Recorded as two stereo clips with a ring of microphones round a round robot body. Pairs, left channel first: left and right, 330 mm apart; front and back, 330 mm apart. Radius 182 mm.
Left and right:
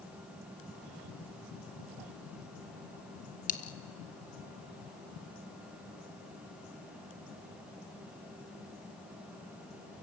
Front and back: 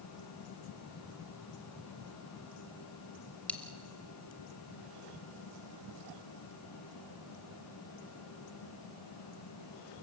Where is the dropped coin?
80° left, 0.5 m.